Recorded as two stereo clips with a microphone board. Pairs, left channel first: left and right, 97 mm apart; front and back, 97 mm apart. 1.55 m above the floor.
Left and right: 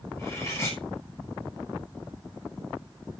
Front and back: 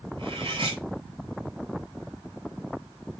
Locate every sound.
0.2 s cutlery clinking: 150° left, 6.5 m